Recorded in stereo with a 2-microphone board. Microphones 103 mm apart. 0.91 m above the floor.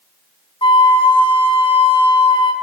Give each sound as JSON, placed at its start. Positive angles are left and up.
{"t": 0.6, "sound": "a flute", "side_deg": 60, "distance_m": 0.9}